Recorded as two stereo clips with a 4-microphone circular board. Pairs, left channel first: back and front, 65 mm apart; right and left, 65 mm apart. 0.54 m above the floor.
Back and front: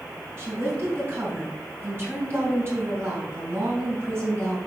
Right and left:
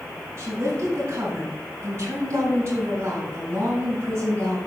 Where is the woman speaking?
50° left, 4.5 m.